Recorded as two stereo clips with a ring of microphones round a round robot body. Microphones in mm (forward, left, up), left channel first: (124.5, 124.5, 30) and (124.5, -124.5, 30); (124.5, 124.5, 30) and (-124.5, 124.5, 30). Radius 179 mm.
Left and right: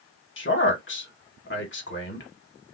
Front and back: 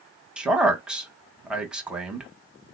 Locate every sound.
0.4 s a man speaking: 95° left, 1.2 m